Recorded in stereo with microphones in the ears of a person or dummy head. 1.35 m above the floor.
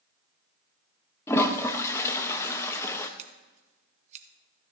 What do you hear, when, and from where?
1.3 s a toilet flushing: 10° left (ahead or behind), 0.9 m
3.2 s scissors: 40° right (ahead or behind), 1.0 m